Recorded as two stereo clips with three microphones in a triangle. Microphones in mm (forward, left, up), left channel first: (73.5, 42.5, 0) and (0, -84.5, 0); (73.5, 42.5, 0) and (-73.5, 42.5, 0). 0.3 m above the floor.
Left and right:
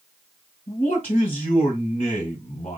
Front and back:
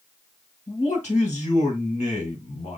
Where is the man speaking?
20° left, 3.5 m.